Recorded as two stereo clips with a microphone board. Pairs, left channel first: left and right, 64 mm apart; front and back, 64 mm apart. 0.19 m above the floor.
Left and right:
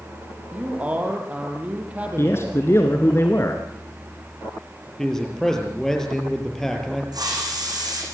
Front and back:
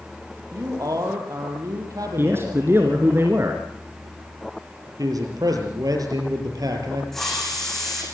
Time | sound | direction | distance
0.5 | a man speaking | 160° right | 5 m
2.2 | a man speaking | 135° left | 2 m
5.0 | a man speaking | 170° left | 5 m
7.1 | a hiss | 85° right | 9 m